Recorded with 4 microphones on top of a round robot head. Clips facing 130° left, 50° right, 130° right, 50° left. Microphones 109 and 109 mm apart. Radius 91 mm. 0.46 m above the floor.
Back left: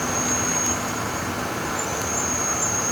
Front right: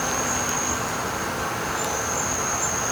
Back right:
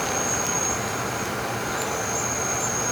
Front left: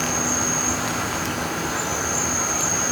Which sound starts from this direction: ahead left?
An insect, at 0.0 s.